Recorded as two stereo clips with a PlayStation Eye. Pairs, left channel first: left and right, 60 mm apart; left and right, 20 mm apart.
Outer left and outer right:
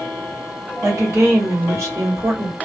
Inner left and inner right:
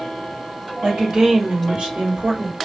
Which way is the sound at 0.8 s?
55° right (ahead or behind).